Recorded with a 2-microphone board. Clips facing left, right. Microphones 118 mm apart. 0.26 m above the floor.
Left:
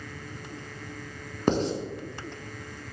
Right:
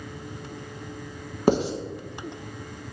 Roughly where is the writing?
Centre.